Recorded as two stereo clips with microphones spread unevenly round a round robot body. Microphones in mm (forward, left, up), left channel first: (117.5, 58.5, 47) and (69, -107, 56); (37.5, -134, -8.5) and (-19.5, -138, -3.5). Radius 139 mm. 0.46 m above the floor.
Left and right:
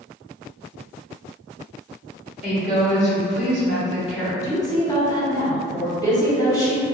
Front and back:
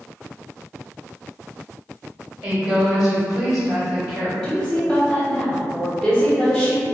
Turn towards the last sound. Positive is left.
turn(degrees=100)